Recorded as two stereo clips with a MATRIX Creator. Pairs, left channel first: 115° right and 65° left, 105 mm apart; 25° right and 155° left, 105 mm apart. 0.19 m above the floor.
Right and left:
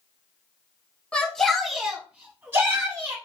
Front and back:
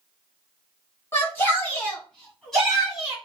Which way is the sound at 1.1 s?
50° right.